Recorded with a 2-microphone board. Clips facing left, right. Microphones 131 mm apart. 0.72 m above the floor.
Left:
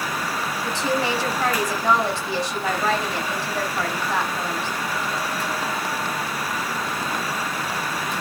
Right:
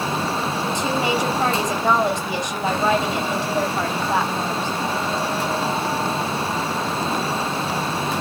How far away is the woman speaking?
About 3 m.